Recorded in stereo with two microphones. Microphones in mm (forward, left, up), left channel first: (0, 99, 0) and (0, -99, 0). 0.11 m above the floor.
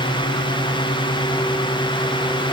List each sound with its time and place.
Only background noise.